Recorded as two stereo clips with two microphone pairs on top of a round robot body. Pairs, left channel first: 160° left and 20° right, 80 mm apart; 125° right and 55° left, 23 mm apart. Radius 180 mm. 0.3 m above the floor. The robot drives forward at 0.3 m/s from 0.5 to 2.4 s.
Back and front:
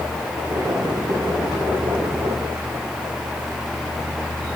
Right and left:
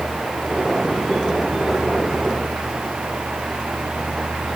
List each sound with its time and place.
Only background noise.